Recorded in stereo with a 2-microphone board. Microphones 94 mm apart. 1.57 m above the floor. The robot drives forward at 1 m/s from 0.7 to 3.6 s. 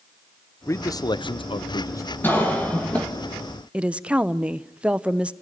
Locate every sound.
0.7 s a man speaking: 30° left (ahead or behind), 0.9 m
2.2 s a cough: 20° left (ahead or behind), 1.5 m; by 3.1 s 15° left (ahead or behind), 2.5 m
3.7 s a woman speaking: 10° right (ahead or behind), 0.7 m